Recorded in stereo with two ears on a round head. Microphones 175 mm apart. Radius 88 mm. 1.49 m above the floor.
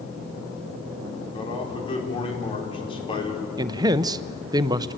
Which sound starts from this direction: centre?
A man speaking, at 3.6 s.